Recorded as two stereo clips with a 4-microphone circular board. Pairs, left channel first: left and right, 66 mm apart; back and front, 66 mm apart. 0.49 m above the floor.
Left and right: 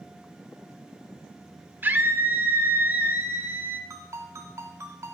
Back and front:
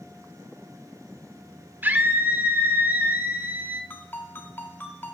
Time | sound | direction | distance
1.8 | a scream | 45° right | 1.1 m
3.9 | a ringtone | 130° right | 2 m